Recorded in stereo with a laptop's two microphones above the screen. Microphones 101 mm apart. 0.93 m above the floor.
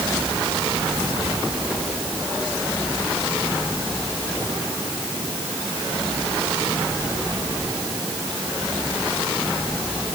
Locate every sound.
Only background noise.